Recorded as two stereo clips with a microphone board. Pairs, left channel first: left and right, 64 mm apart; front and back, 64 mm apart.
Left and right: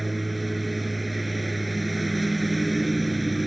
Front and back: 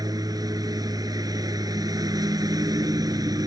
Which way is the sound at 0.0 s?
Straight behind.